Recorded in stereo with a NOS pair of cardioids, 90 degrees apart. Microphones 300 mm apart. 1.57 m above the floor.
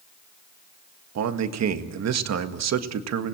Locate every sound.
1.1 s a man speaking: 60° right, 1.9 m